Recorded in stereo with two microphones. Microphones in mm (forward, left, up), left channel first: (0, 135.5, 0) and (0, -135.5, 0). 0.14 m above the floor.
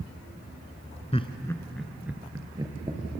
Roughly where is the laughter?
Left.